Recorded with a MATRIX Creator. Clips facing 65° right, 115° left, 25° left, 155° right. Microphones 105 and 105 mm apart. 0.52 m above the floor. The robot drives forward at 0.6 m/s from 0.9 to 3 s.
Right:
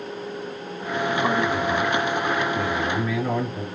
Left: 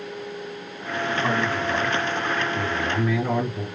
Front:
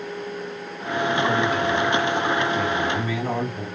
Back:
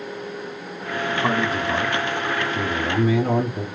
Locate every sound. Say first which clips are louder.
1.2 s a man speaking: right 1 dB, back 1 dB; 120° right, 1.3 m; by 3.7 s 155° right, 1.9 m